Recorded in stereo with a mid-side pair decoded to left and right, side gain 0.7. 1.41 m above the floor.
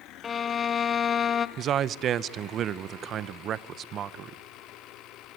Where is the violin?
25° left, 1.2 m.